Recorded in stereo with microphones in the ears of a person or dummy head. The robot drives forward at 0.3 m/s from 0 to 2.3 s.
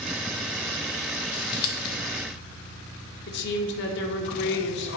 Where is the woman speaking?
55° left (ahead or behind), 0.5 m.